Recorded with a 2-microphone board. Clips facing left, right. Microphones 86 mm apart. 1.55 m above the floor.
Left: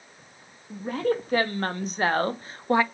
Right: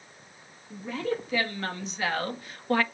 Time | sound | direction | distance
0.7 | a woman speaking | 45° left (ahead or behind) | 2.5 m